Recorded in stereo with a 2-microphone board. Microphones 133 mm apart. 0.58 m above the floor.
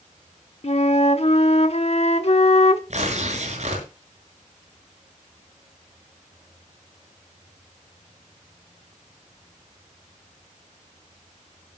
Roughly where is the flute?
Left.